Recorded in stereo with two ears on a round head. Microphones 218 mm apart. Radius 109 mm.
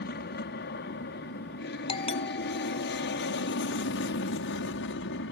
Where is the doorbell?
25° left (ahead or behind).